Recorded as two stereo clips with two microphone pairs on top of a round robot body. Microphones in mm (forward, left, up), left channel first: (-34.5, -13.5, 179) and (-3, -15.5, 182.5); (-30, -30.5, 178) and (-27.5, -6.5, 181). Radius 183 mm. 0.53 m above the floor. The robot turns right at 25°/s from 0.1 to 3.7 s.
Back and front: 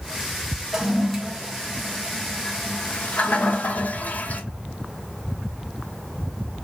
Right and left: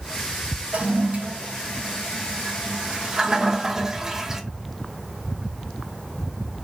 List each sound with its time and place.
0.7 s a toilet flushing: 80° left, 2 m; by 4.4 s 155° left, 2 m